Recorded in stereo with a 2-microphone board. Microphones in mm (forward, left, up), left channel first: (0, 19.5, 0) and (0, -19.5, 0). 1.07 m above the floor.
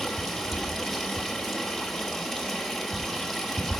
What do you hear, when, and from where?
0.0 s running water: centre (ahead or behind), 1.5 m